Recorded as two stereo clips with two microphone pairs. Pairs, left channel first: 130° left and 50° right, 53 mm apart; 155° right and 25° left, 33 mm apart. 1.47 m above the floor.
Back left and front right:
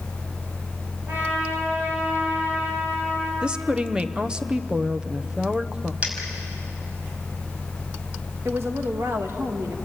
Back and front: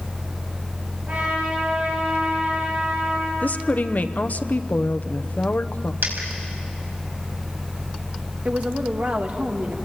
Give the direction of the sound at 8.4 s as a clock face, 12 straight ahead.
1 o'clock.